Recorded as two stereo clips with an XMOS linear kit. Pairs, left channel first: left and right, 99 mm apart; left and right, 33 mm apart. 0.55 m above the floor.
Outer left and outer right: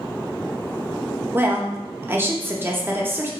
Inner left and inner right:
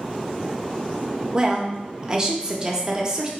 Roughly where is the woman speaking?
Right.